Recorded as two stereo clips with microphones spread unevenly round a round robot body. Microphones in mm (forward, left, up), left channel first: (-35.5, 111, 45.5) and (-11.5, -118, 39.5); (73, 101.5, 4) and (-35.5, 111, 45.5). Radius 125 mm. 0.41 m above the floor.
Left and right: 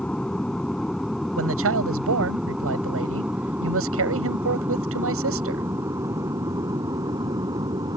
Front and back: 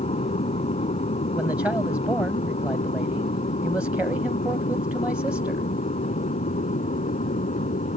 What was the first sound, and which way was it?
An aircraft, 10° left.